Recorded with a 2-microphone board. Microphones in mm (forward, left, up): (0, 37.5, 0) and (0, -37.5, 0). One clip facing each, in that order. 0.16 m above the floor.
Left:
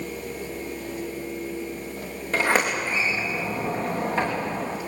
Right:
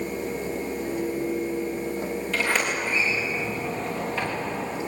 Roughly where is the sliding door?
Left.